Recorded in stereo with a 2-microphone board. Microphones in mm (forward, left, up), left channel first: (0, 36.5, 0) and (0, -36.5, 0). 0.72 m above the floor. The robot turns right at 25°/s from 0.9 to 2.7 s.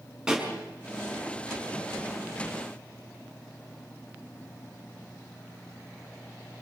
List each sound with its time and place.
0.3 s a pop: 10° right (ahead or behind), 6 m